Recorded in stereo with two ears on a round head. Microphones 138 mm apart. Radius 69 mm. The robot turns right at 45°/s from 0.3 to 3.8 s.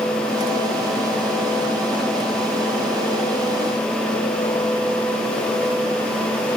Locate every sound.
Only background noise.